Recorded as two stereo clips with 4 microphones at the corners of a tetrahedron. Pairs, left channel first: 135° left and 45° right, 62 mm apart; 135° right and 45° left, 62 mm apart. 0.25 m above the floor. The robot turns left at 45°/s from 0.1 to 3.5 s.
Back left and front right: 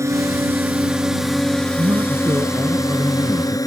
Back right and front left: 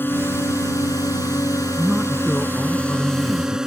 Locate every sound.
0.0 s a drone: 80° right; by 3.7 s 125° left
1.8 s a man speaking: 35° right; by 3.6 s 115° right